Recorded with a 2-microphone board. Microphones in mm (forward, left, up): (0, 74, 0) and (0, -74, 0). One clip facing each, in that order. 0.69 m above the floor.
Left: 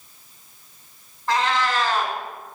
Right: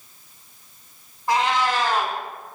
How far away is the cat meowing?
About 0.9 m.